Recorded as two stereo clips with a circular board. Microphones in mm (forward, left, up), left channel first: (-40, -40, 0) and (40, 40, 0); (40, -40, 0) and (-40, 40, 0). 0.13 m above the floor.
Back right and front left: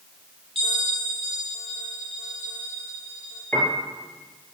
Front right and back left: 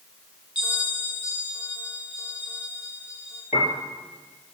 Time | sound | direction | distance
0.6 | a bell | 5° left | 2.5 m
3.5 | a piano | 55° right | 3.5 m